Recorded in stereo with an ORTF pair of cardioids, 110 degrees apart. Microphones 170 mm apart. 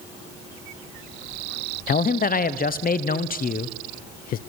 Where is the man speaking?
55° left, 1.0 m.